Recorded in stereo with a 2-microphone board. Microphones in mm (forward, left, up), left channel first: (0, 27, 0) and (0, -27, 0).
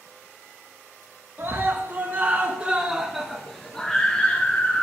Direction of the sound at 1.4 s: 35° right (ahead or behind).